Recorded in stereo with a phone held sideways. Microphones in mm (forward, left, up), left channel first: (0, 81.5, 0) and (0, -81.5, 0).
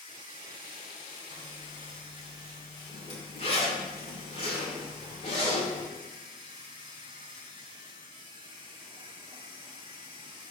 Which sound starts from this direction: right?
A machine running, at 0.0 s.